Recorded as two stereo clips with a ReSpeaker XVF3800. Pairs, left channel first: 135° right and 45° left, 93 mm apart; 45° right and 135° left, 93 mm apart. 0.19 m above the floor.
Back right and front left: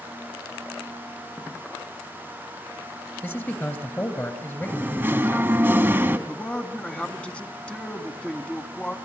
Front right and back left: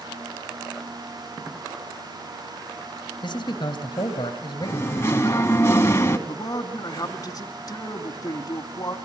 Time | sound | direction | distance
3.2 | a man speaking | 70° right | 2.5 m
4.6 | singing | 5° right | 1.4 m
6.3 | a man speaking | 60° right | 1.5 m